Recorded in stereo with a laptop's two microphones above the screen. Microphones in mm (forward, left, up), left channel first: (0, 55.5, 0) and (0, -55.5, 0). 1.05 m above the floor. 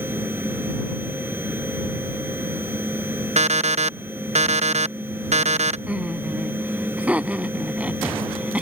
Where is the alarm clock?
80° right.